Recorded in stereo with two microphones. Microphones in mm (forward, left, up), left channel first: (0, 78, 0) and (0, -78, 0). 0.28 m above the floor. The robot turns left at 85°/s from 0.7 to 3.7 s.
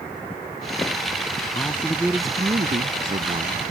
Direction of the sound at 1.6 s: 35° left.